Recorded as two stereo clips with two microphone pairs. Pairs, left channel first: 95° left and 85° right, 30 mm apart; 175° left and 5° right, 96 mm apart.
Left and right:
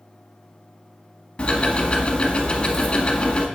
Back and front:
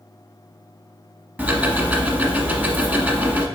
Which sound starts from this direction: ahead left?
Ticking, at 1.4 s.